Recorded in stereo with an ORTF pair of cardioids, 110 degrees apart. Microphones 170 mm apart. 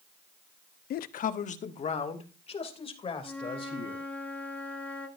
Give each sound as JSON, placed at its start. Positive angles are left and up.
{"t": 0.9, "sound": "a man speaking", "azimuth_deg": 65, "distance_m": 0.7}
{"t": 3.2, "sound": "a flute", "azimuth_deg": 10, "distance_m": 1.9}